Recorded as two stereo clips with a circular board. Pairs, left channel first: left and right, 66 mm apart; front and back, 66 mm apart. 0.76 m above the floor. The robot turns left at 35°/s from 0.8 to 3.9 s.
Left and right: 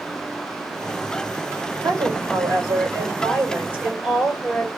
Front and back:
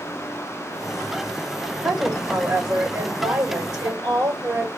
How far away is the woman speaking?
About 2.5 m.